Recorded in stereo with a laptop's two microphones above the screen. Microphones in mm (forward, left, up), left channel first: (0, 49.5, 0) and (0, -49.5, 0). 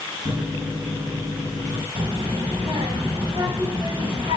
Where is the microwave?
75° right (ahead or behind), 5 m.